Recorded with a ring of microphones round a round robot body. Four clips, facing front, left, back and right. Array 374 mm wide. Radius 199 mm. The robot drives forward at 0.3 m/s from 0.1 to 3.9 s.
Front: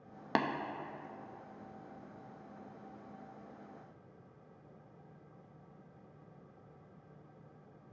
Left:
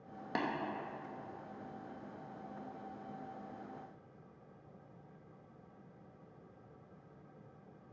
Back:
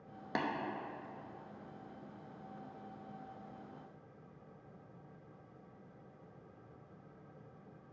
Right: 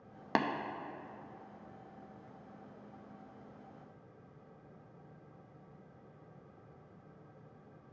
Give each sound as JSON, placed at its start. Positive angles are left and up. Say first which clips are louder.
{"t": 0.3, "sound": "tapping", "louder": "right 5 dB, front 5 dB", "azimuth_deg": -50, "distance_m": 0.7}